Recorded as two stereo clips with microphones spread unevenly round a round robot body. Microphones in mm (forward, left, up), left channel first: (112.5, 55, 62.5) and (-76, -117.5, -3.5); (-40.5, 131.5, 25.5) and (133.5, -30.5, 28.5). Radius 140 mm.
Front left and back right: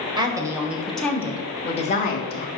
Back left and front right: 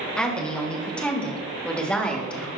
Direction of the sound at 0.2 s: 140° right.